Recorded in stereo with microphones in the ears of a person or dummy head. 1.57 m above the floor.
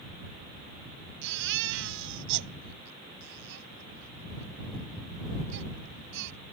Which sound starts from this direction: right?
A baby crying, at 1.2 s.